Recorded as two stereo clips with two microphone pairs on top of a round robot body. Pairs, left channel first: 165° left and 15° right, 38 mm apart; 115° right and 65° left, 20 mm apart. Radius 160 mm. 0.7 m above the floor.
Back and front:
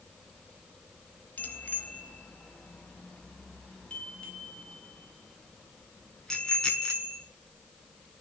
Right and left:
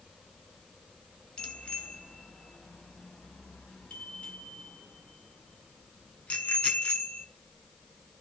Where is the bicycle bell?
155° right, 3.5 m; by 7.2 s 115° right, 7.5 m.